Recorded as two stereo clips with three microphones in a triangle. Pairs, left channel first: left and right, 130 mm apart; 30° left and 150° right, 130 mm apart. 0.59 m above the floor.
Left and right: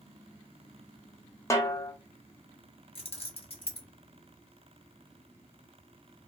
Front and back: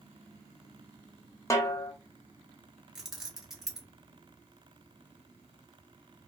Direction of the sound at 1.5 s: 60° left.